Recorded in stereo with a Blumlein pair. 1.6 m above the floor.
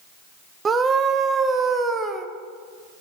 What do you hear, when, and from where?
0.7 s a scream: 20° right, 0.6 m